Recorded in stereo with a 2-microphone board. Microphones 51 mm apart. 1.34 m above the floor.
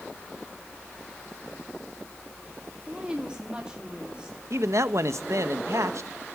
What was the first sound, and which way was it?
A woman speaking, 20° right (ahead or behind).